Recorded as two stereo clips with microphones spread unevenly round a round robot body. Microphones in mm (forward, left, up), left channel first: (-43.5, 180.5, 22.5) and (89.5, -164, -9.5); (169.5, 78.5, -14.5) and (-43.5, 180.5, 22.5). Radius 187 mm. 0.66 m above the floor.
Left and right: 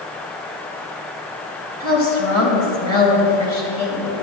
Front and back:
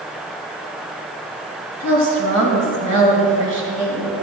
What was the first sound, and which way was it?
A woman speaking, 170° left.